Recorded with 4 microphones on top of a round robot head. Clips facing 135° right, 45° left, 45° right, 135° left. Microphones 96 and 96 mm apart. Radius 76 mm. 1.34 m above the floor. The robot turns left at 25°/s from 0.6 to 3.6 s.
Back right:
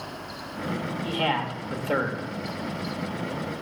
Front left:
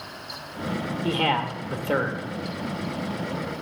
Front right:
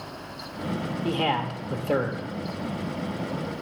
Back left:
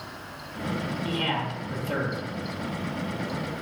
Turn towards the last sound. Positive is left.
turn(degrees=-65)